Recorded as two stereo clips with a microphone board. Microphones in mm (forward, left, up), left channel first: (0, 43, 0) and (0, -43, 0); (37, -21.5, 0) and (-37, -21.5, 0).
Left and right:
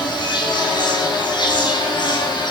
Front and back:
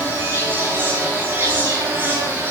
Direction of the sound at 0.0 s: 120° left.